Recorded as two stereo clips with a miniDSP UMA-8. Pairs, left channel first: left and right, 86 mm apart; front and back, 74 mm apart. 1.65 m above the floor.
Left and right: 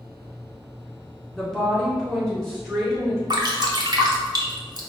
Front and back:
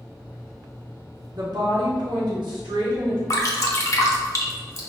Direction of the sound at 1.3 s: 175° left.